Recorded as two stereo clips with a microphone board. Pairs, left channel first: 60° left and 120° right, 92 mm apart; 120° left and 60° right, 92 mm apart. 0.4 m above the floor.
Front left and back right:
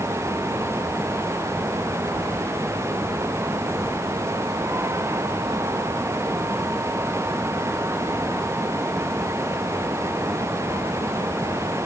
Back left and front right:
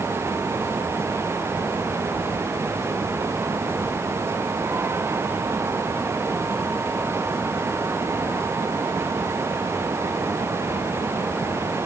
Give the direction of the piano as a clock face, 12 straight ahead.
I don't hear a piano.